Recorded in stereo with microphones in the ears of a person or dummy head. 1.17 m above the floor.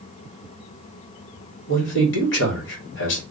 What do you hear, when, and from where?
1.7 s a man speaking: 65° left (ahead or behind), 1.2 m